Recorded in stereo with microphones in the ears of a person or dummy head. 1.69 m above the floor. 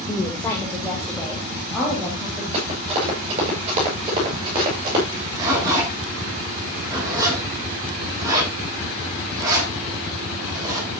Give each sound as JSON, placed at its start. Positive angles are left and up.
{"t": 0.1, "sound": "a woman speaking", "side_deg": 20, "distance_m": 2.0}
{"t": 2.5, "sound": "running footsteps", "side_deg": -35, "distance_m": 9.5}
{"t": 5.1, "sound": "a zipper", "side_deg": -25, "distance_m": 6.5}